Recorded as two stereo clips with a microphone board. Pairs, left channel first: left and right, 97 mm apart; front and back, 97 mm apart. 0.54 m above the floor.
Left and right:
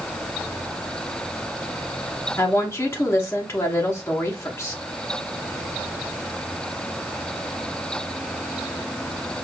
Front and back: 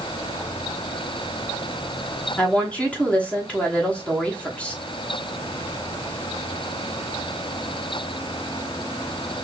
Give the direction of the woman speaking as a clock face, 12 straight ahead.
10 o'clock.